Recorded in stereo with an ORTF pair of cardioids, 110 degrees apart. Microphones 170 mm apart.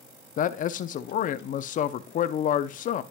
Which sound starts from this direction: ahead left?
A man speaking, at 0.4 s.